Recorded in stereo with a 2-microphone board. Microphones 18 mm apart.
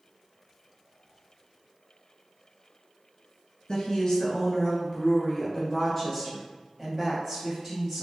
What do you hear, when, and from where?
3.7 s a woman speaking: 40° left (ahead or behind), 1.6 m; by 8.0 s 15° right (ahead or behind), 2.5 m